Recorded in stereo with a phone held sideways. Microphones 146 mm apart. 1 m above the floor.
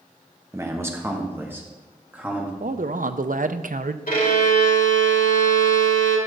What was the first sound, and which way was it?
A man speaking, 20° right (ahead or behind).